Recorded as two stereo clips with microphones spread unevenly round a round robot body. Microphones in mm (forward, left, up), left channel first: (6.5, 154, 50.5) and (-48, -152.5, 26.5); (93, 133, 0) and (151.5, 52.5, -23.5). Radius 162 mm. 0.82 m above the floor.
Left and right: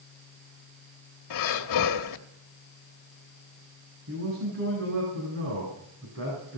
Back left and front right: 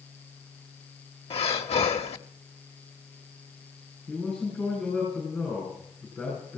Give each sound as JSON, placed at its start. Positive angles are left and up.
{"t": 1.3, "sound": "breathing", "azimuth_deg": 105, "distance_m": 1.2}
{"t": 4.1, "sound": "a man speaking", "azimuth_deg": -145, "distance_m": 9.0}